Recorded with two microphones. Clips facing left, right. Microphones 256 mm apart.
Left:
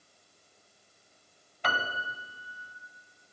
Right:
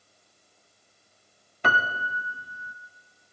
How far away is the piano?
About 0.5 m.